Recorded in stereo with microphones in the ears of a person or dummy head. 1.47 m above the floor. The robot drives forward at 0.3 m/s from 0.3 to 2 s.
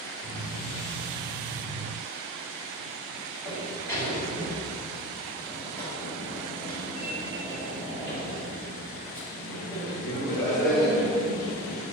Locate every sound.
3.5 s a sliding door: 15° left (ahead or behind), 1.5 m